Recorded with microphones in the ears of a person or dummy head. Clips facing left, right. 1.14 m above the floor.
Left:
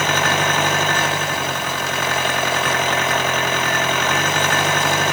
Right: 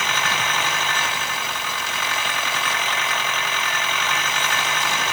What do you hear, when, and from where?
0.0 s an engine running: 45° left (ahead or behind)